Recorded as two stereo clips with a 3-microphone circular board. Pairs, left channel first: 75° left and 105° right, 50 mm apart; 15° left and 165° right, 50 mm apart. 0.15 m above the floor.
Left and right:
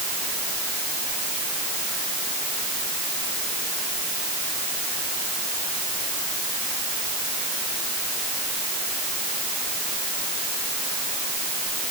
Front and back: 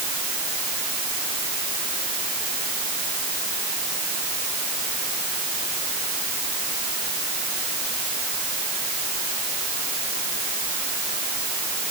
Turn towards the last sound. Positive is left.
No sound to turn to.